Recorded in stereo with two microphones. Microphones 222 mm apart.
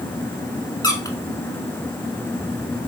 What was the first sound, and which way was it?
A squeak, 15° left (ahead or behind).